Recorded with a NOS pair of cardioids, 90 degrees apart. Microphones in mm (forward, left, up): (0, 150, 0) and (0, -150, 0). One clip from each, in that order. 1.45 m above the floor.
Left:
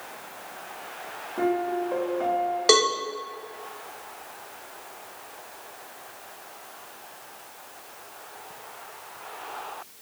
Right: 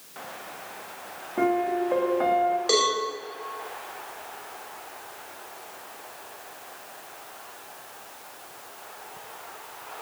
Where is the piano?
25° right, 1.3 m.